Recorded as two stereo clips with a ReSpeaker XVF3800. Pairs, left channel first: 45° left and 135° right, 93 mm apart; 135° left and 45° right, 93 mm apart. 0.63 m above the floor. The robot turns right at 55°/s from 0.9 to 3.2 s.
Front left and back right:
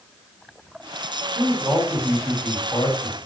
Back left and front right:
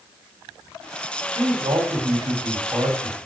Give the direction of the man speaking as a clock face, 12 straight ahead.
3 o'clock.